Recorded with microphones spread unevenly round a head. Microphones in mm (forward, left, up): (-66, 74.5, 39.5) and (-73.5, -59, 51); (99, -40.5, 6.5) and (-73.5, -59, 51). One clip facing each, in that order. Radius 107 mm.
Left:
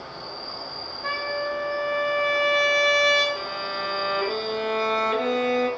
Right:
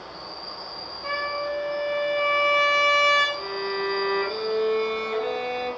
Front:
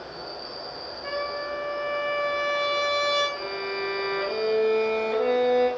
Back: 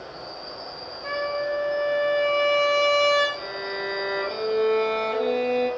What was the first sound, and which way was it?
An insect, 40° left.